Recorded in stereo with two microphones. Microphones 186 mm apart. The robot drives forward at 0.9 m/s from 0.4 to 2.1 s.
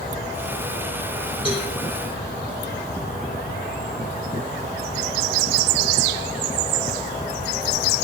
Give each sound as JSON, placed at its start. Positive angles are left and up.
{"t": 1.4, "sound": "a cowbell", "side_deg": 30, "distance_m": 4.0}